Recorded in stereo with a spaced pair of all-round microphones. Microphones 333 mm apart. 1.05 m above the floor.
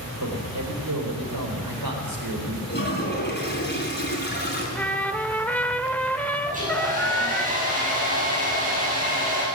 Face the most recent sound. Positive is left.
turn(degrees=-25)  # may be behind; listen again after turning